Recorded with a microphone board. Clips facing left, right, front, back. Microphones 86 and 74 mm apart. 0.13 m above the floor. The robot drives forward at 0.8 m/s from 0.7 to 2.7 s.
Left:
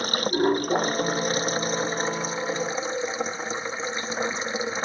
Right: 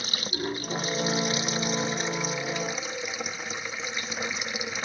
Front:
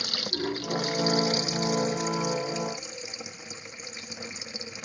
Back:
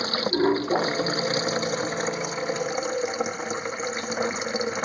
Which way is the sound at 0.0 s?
130° left.